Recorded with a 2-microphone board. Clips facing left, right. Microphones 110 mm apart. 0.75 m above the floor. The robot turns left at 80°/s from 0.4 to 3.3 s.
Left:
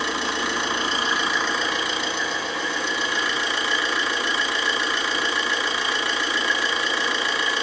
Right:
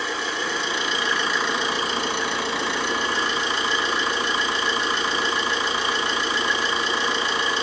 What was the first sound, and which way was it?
An engine running, 70° left.